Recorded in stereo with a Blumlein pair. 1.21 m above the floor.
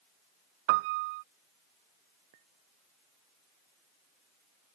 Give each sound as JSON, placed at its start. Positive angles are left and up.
{"t": 0.7, "sound": "a piano", "azimuth_deg": -50}
{"t": 2.3, "sound": "a clink", "azimuth_deg": -50}